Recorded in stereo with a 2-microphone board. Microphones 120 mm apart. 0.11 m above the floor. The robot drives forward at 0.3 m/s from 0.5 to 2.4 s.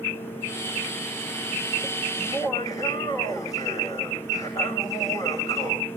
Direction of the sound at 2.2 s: 30° left (ahead or behind).